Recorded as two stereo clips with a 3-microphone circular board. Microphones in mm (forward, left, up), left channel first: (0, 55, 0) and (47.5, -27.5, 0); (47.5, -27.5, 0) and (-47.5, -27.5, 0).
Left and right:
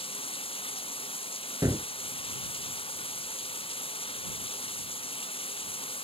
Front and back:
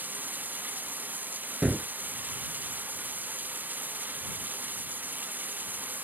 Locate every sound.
0.0 s running water: 110° left
1.6 s a gunshot: 100° right